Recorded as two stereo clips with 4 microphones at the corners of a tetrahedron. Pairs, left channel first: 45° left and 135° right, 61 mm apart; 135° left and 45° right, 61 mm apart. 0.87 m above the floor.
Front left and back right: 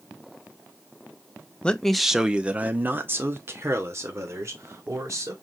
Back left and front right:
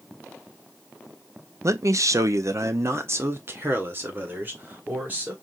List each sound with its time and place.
1.6 s a man speaking: 25° right, 0.6 m; by 5.3 s 105° right, 1.9 m